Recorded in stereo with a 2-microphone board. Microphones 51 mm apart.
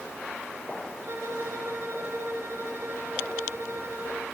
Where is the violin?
50° right (ahead or behind), 3 m.